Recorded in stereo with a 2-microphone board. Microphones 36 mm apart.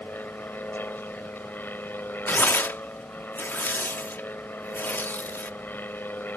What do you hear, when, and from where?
0.0 s an aircraft: 65° left (ahead or behind)
2.3 s tearing paper: 70° left (ahead or behind)